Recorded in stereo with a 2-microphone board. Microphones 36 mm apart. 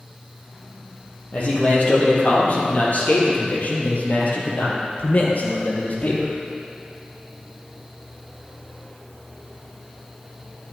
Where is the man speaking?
45° left (ahead or behind), 5 m; by 6.3 s 55° left (ahead or behind), 3 m.